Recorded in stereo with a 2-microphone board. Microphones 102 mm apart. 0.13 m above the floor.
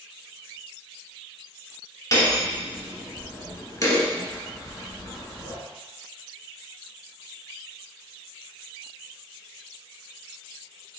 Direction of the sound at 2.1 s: 30° left (ahead or behind).